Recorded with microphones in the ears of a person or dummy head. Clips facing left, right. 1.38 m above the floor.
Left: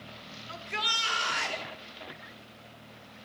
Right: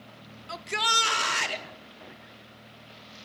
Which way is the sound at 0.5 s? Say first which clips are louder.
Right 7 dB; 50° right (ahead or behind).